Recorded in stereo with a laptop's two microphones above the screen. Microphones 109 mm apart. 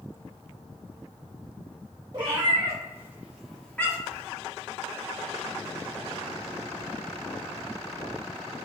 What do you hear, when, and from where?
2.1 s a cat meowing: 40° right (ahead or behind), 0.9 m; by 4.2 s 25° left (ahead or behind), 0.8 m